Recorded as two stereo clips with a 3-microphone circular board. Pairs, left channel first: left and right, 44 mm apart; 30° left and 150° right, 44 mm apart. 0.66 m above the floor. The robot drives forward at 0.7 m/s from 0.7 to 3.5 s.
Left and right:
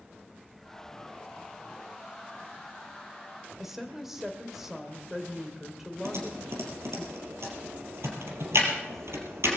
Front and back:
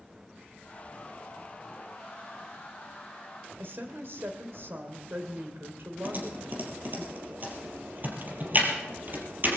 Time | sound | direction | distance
3.6 | a woman speaking | 175° right | 2 m
6.0 | typing on a keyboard | 105° right | 3.5 m